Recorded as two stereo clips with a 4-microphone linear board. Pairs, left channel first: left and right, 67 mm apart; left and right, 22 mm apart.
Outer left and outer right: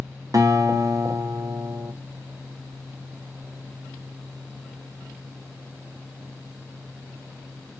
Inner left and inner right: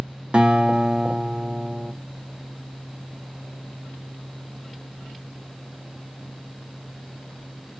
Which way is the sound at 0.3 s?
55° right (ahead or behind).